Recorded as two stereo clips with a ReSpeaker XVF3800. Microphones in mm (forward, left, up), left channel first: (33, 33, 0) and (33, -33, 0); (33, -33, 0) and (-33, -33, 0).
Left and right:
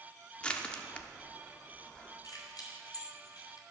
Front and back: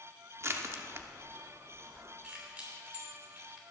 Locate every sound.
0.4 s crushing: 155° left, 0.9 m
2.2 s keys jangling: 110° left, 3 m